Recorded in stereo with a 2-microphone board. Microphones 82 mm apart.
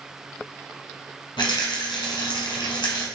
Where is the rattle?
75° left (ahead or behind), 1.2 m.